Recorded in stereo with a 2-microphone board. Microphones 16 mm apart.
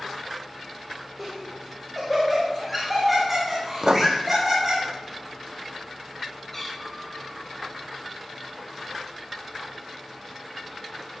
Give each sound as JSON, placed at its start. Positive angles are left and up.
{"t": 1.2, "sound": "laughter", "side_deg": -5, "distance_m": 4.5}
{"t": 3.8, "sound": "writing", "side_deg": -45, "distance_m": 0.9}
{"t": 6.5, "sound": "a cat meowing", "side_deg": 15, "distance_m": 6.5}